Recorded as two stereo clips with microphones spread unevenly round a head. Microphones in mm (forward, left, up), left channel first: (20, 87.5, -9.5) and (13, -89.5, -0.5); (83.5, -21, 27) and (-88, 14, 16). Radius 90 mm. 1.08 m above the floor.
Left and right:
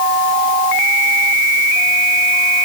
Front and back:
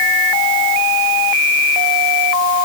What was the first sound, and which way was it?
Only background noise.